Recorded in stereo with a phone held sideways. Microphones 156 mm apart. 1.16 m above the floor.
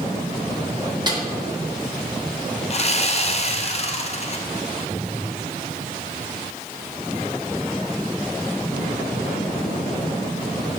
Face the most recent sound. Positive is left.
turn(degrees=40)  # may be behind; listen again after turning